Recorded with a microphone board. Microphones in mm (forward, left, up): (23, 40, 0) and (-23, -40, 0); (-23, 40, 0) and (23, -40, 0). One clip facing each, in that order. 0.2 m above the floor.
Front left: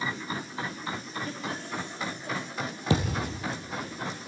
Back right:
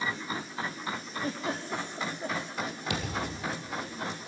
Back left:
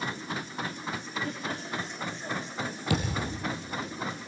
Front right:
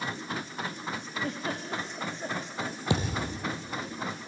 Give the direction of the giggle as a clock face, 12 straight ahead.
3 o'clock.